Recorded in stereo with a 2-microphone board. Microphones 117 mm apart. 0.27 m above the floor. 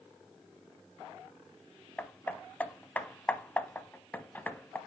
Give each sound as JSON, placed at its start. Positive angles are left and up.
{"t": 2.0, "sound": "hammering", "side_deg": 15, "distance_m": 0.8}